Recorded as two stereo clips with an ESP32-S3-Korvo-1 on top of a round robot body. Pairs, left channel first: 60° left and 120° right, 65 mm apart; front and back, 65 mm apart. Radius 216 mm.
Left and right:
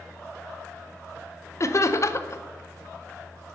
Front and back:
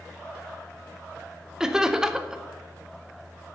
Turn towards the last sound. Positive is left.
turn(degrees=100)